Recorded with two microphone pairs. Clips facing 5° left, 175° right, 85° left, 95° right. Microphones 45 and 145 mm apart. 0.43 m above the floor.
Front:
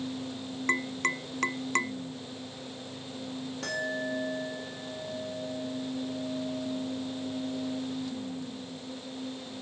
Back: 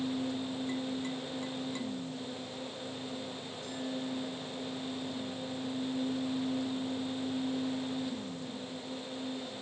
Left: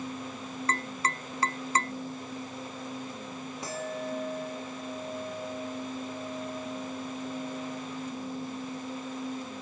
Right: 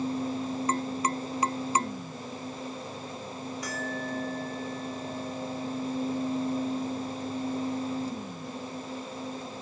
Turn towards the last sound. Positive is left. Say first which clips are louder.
# front 6 dB, left 1 dB
turn(degrees=20)